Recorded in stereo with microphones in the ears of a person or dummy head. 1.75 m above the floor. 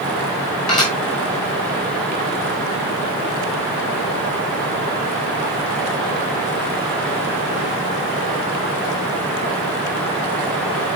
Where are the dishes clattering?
25° left (ahead or behind), 7.5 m.